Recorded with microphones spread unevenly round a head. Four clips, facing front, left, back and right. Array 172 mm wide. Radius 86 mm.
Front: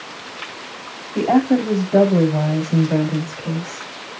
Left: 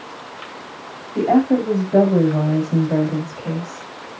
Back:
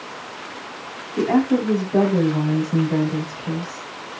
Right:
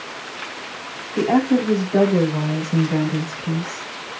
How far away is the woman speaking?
About 6.5 m.